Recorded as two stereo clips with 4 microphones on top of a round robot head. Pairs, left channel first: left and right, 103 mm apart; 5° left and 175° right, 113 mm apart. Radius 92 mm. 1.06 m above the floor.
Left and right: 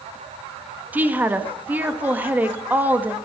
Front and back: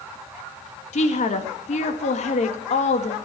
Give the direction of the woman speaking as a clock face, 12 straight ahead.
1 o'clock.